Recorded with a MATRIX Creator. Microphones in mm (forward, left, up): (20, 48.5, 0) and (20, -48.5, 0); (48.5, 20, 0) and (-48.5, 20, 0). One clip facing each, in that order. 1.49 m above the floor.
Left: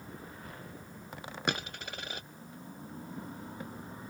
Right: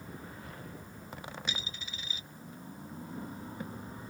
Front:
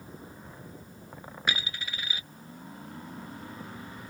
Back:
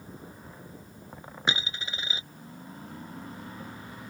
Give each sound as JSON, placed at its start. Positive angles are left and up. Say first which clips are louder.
{"t": 1.5, "sound": "a dropped coin", "louder": "left 7 dB, back 2 dB", "azimuth_deg": 115}